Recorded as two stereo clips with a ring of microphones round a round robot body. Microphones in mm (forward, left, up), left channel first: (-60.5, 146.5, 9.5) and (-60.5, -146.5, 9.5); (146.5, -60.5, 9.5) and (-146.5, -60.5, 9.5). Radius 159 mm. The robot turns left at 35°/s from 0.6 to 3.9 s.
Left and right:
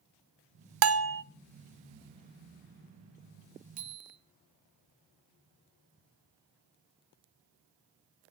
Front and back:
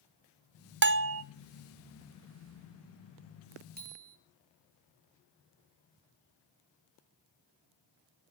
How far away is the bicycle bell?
About 6 m.